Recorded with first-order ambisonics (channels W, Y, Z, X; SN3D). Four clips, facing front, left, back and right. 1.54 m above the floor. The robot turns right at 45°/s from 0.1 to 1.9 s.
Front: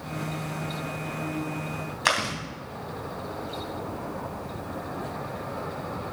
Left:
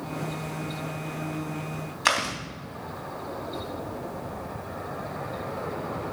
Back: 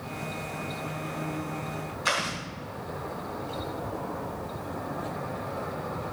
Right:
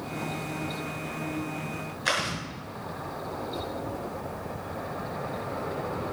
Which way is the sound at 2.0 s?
45° left.